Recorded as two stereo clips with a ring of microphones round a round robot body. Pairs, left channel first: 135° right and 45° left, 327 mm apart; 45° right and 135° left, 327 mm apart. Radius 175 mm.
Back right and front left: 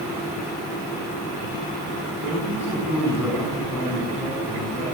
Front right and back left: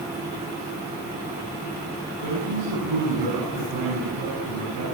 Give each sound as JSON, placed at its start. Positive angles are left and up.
{"t": 2.2, "sound": "a man speaking", "azimuth_deg": 130, "distance_m": 9.5}